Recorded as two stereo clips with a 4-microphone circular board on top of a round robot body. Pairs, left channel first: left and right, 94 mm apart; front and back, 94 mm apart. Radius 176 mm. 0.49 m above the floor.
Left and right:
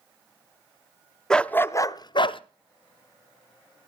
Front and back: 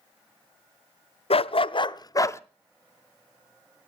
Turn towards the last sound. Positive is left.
turn(degrees=60)